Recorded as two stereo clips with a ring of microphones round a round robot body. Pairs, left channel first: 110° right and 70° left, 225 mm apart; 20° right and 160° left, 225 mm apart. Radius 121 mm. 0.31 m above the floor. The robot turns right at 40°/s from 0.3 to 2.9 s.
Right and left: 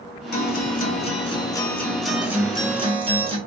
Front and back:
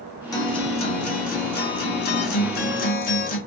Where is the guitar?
90° right, 1.3 m; by 3.4 s 10° left, 1.3 m.